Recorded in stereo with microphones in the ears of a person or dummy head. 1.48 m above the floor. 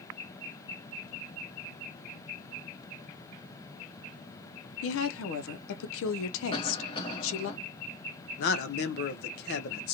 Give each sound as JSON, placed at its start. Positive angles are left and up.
{"t": 4.8, "sound": "a woman speaking", "side_deg": 80, "distance_m": 0.5}
{"t": 6.5, "sound": "a cough", "side_deg": 30, "distance_m": 1.3}
{"t": 8.4, "sound": "a man speaking", "side_deg": 60, "distance_m": 0.7}